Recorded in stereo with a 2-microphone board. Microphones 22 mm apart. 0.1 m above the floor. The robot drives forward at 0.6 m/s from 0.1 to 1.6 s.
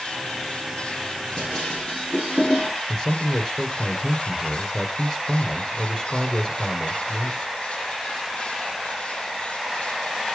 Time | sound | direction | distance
1.4 | dishes clattering | 25° left (ahead or behind) | 6.5 m
2.9 | a man speaking | 30° left (ahead or behind) | 2 m